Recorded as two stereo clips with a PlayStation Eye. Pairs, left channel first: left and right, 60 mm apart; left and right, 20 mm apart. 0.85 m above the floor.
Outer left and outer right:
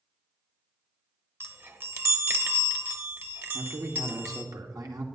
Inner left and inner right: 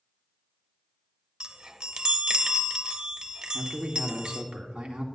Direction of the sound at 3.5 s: 75° right (ahead or behind).